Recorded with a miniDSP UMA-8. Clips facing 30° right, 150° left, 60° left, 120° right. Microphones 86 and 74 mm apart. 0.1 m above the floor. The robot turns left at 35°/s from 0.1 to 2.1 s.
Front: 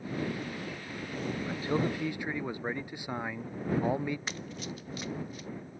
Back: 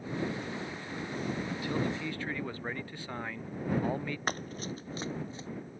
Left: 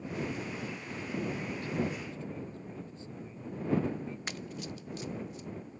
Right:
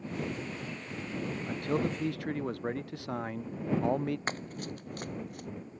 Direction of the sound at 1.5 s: 85° right.